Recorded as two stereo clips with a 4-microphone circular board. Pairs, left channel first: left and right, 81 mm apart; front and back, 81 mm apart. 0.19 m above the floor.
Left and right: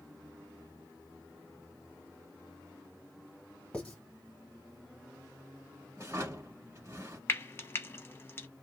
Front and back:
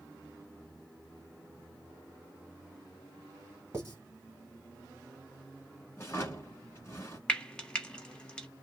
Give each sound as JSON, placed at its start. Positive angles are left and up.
{"t": 3.7, "sound": "writing", "azimuth_deg": 155, "distance_m": 1.1}
{"t": 6.0, "sound": "a drawer", "azimuth_deg": -50, "distance_m": 1.2}
{"t": 7.3, "sound": "frying", "azimuth_deg": 65, "distance_m": 0.6}